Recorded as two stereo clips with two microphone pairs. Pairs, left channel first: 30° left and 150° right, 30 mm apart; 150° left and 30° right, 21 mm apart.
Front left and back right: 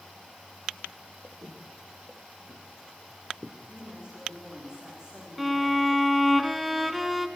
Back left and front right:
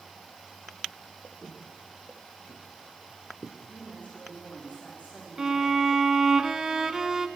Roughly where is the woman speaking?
Behind left.